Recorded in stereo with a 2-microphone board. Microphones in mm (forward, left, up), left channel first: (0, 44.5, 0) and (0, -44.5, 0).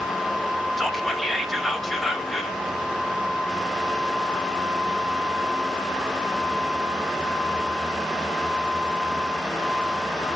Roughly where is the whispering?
Centre.